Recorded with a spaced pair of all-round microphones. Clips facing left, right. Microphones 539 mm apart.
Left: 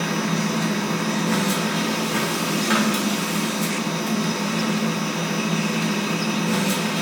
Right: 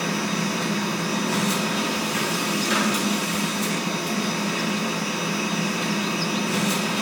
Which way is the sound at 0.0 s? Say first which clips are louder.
Left 2 dB; 75° left (ahead or behind).